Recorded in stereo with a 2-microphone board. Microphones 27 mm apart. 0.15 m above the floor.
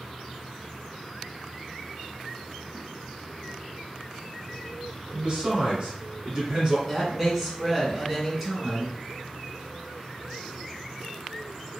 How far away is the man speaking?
About 1.5 m.